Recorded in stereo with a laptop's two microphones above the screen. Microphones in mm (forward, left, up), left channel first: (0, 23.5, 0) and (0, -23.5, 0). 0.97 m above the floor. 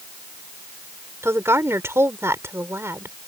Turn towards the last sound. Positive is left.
turn(degrees=-70)  # may be behind; listen again after turning